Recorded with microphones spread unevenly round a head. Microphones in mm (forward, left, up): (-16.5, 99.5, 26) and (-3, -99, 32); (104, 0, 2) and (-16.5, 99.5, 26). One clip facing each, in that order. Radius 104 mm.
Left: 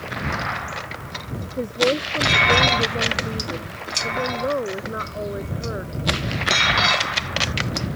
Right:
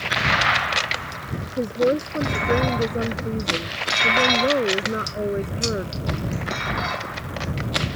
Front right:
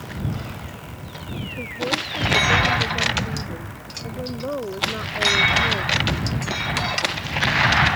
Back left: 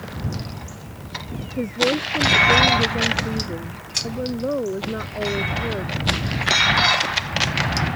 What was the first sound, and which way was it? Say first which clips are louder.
A woman speaking: right 1 dB, back left 7 dB; 160° right.